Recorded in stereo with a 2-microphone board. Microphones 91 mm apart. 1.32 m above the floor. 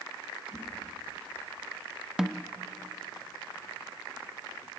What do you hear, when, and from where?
0.5 s a whoosh: 35° left (ahead or behind), 8.5 m
2.2 s a snare drum: 5° right (ahead or behind), 0.6 m